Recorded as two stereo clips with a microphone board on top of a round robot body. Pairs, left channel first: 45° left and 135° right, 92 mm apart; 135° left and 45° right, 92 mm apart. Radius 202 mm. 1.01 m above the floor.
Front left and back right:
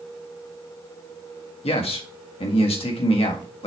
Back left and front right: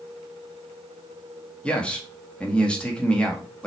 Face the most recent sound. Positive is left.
turn(degrees=55)